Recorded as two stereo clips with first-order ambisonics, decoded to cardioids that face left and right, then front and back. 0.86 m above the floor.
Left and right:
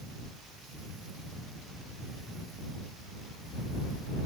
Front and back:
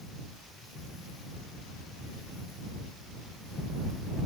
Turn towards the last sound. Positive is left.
No sound to turn to.